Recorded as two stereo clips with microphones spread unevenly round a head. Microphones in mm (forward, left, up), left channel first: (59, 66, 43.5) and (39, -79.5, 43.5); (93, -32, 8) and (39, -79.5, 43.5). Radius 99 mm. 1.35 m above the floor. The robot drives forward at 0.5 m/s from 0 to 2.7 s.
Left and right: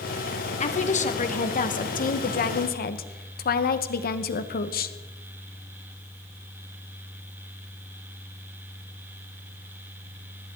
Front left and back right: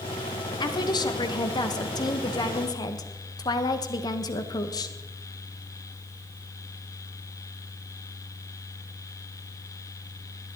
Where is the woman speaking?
40° left, 2 m; by 5.0 s 70° left, 1.5 m.